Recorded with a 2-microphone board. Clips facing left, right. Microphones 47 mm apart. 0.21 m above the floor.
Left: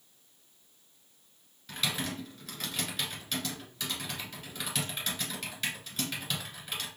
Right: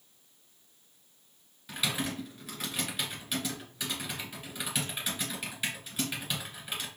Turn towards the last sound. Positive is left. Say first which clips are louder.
# right 1 dB
turn(degrees=-10)  # may be behind; listen again after turning